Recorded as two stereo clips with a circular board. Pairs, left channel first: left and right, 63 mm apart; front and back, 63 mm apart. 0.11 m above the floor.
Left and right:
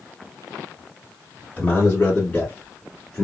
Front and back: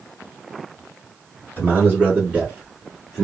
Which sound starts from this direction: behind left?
A man speaking, at 1.6 s.